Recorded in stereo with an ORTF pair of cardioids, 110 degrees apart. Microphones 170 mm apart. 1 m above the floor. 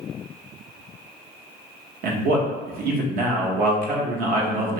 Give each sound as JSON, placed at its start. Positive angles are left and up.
{"t": 2.0, "sound": "a man speaking", "azimuth_deg": -60, "distance_m": 0.8}